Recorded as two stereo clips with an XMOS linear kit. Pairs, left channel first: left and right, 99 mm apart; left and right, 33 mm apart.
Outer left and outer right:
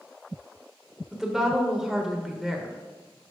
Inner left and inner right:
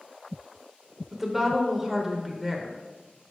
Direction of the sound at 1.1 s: 5° right (ahead or behind).